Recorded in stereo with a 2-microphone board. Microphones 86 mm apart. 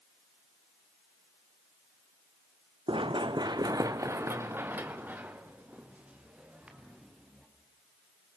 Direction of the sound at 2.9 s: 80° right.